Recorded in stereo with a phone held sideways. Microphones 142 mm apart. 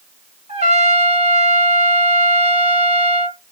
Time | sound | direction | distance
0.5 | a trumpet | 55° right (ahead or behind) | 3 m